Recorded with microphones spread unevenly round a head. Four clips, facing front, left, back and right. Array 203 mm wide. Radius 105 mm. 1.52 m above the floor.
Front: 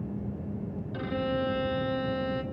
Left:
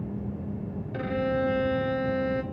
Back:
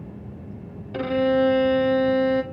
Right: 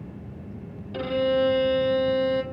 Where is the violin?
175° right, 1.6 m.